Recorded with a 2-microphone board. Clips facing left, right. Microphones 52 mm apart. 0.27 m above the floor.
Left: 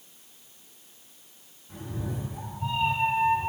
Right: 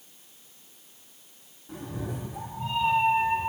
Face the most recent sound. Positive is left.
turn(degrees=-65)  # may be behind; listen again after turning